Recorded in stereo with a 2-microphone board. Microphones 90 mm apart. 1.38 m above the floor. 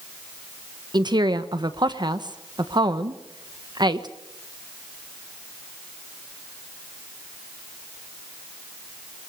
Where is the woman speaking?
55° right (ahead or behind), 1.2 m.